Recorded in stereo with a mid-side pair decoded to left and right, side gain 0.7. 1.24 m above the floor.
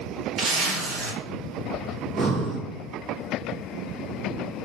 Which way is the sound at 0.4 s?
50° right.